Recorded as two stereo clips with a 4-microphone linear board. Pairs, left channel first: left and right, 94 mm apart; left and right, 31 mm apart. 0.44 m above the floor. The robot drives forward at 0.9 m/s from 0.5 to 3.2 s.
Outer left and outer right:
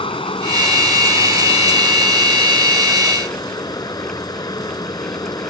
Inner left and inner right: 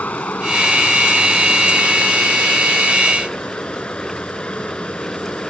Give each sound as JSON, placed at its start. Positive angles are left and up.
{"t": 0.0, "sound": "running water", "side_deg": 70}